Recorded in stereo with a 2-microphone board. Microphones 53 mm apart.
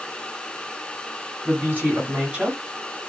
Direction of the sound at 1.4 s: 40° right (ahead or behind).